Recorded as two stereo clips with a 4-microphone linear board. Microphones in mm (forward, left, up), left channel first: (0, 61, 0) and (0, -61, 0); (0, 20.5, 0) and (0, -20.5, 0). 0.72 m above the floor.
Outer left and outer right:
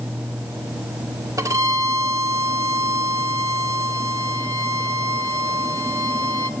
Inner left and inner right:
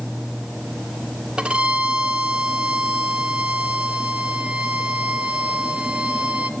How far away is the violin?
About 1.7 m.